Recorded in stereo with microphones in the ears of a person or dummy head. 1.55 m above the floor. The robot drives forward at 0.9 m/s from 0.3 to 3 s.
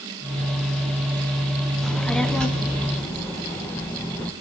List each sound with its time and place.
1.8 s a child speaking: 5° left (ahead or behind), 1.1 m